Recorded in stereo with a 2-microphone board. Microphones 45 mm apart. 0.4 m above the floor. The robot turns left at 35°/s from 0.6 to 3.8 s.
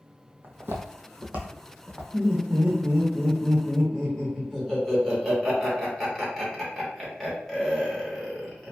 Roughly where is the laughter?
Centre.